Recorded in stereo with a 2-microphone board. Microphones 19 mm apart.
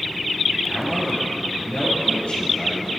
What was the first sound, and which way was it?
A man speaking, 70° left (ahead or behind).